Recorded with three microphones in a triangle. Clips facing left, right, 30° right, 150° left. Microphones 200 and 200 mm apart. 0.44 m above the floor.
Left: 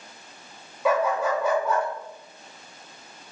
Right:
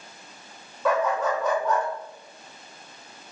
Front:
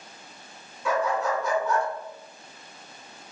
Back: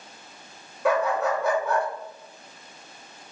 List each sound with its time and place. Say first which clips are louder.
0.8 s a dog barking: left 1 dB, back 3 dB; 170° left, 0.5 m